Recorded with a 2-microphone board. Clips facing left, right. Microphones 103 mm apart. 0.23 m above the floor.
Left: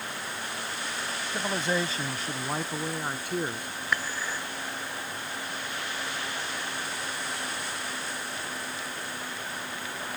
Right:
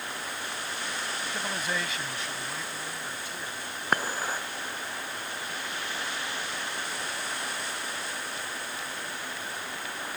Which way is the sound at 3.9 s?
45° right (ahead or behind).